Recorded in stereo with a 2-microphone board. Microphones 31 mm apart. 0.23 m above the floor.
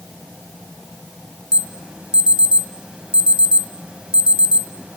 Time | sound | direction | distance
1.5 | an alarm | 30° right (ahead or behind) | 1.8 m